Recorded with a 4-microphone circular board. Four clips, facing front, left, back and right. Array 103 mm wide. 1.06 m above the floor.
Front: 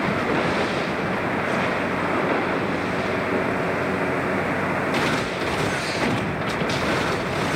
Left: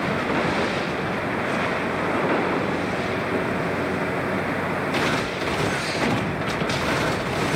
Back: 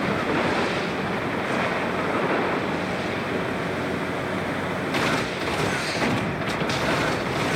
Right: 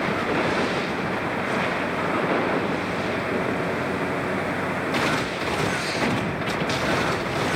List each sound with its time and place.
Only background noise.